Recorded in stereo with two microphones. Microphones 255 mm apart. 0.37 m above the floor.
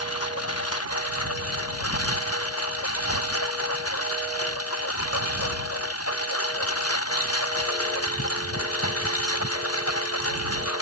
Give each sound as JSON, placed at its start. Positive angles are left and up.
{"t": 0.0, "sound": "a lawn mower", "side_deg": 70}